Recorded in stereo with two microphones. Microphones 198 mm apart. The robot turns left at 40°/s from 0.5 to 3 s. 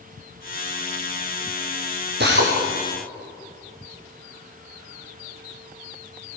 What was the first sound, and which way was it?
A drill, 55° right (ahead or behind).